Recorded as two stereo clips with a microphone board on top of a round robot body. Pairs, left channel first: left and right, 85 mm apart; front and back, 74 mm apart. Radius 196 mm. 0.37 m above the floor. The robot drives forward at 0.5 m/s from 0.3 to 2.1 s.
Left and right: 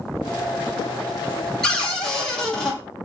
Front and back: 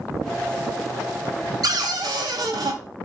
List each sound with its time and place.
1.6 s a cupboard door: 170° left, 1.2 m; by 2.8 s 175° left, 1.4 m